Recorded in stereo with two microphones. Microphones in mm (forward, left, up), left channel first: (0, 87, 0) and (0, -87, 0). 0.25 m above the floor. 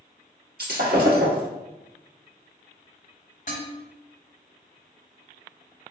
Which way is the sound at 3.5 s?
50° left (ahead or behind).